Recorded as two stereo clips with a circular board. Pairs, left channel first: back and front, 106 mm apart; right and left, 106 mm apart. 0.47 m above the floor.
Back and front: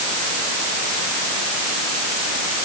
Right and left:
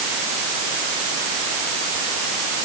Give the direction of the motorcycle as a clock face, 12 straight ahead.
No motorcycle in this recording.